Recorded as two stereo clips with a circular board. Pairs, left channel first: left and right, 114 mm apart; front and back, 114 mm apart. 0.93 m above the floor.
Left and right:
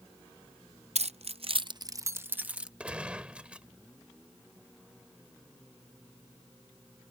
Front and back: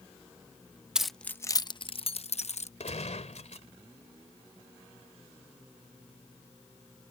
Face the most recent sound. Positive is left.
turn(degrees=-10)